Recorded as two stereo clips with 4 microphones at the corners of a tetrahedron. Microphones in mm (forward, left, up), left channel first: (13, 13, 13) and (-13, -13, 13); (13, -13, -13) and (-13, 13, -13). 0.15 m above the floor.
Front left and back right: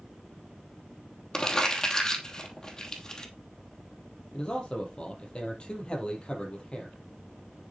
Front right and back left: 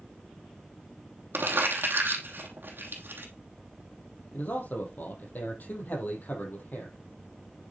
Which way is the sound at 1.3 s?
115° left.